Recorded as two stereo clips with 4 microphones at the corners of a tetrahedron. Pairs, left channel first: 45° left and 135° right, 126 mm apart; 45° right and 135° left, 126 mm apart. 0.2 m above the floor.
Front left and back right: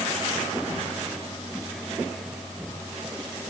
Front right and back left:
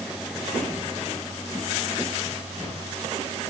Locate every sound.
Only background noise.